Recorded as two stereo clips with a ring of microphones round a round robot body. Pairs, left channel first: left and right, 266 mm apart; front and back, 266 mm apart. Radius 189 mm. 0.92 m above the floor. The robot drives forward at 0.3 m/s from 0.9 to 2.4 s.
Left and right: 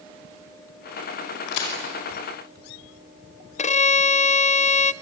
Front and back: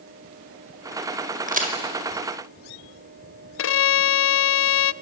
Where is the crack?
120° left, 4.5 m.